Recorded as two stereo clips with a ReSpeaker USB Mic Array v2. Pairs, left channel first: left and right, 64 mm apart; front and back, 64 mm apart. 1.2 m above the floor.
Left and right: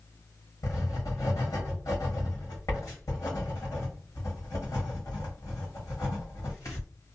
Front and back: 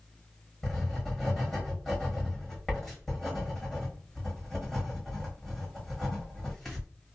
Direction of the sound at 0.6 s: 85° left.